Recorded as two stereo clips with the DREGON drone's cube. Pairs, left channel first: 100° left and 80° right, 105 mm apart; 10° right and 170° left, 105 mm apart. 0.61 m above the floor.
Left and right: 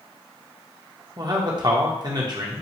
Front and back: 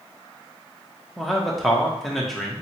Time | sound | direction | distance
1.2 | a man speaking | 100° right | 1.0 m